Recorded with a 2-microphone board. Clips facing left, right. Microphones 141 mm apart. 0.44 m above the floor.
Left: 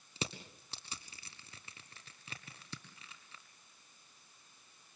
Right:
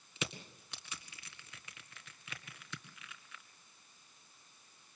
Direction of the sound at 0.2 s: 35° left (ahead or behind).